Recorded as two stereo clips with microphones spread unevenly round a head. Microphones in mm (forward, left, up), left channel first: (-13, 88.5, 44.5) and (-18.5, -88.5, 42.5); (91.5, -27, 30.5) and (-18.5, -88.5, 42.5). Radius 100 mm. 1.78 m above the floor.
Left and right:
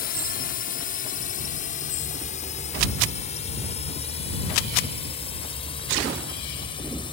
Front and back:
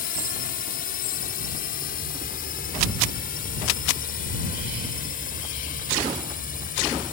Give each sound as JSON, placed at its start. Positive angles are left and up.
{"t": 0.0, "sound": "a drone", "azimuth_deg": 45}